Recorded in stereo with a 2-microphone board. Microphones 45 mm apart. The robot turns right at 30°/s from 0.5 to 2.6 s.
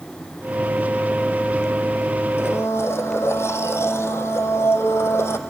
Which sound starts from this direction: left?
A blender, at 2.4 s.